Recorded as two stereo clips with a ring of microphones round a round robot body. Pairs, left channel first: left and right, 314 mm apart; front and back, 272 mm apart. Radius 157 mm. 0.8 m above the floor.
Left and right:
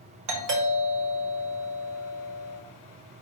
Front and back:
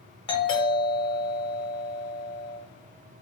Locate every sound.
0.3 s a doorbell: 70° right, 1.2 m